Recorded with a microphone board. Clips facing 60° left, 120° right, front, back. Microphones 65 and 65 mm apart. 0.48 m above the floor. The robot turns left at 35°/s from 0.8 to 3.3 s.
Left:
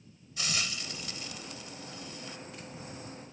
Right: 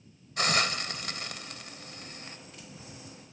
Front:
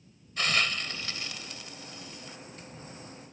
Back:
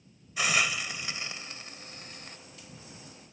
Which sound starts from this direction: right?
A hiss, at 0.4 s.